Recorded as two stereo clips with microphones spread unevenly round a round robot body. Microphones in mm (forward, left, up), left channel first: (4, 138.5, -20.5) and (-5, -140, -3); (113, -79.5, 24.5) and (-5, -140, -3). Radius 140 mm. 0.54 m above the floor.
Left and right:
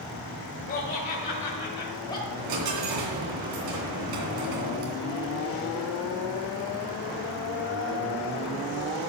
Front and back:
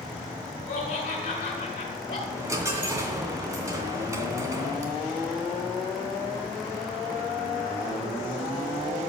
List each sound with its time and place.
0.7 s laughter: 30° left, 2.5 m; by 2.2 s 15° left, 2 m
2.3 s a dropped coin: 85° right, 3 m